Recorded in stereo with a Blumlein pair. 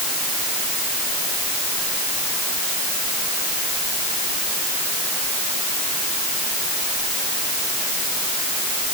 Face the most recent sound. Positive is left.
No sound to turn to.